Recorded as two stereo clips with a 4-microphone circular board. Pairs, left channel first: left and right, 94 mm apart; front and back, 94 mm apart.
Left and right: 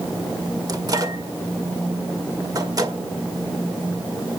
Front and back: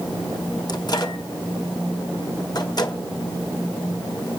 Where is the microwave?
40° right, 1.8 m.